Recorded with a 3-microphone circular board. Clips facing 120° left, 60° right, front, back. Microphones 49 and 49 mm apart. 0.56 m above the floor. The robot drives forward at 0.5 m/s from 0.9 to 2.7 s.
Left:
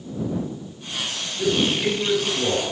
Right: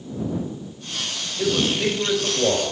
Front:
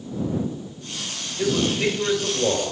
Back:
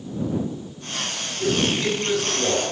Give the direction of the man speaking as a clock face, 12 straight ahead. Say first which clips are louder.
Even, front 1 dB; 2 o'clock.